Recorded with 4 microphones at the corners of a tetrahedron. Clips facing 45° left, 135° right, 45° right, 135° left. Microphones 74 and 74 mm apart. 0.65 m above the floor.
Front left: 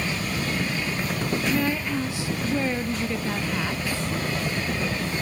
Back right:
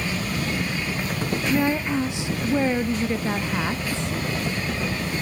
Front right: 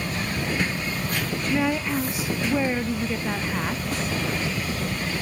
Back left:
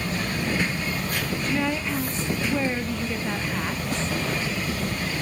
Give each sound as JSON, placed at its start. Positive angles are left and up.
{"t": 1.5, "sound": "a woman speaking", "azimuth_deg": -105, "distance_m": 0.5}